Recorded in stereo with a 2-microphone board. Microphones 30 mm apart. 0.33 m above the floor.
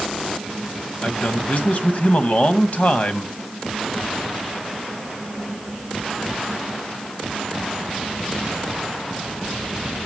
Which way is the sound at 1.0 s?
50° left (ahead or behind).